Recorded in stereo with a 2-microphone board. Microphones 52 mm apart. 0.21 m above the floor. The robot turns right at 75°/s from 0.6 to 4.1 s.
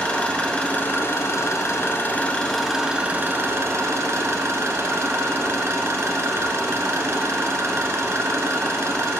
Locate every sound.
0.0 s an engine running: 25° left, 1.0 m; by 9.2 s 70° right, 1.0 m